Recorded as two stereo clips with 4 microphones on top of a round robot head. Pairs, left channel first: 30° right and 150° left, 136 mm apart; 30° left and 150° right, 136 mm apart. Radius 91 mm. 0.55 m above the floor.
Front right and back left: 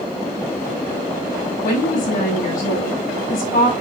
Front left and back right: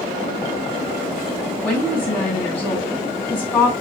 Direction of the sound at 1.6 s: 45° right.